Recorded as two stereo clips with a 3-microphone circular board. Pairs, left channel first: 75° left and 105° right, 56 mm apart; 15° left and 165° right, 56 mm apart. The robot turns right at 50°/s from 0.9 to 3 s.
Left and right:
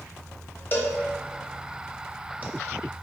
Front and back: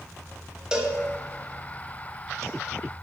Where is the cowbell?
120° left, 0.5 m; by 2.4 s 165° right, 0.5 m.